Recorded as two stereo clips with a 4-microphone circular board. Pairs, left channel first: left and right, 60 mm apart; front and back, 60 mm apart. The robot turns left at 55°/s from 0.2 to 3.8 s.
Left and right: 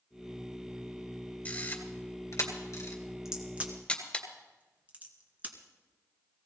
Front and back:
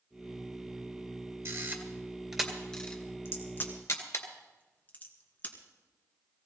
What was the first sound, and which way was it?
A camera shutter, 150° left.